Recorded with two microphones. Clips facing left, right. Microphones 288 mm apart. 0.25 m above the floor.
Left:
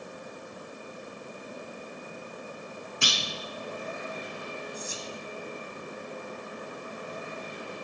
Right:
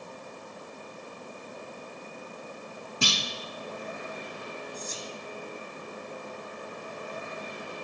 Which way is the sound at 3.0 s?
45° right (ahead or behind).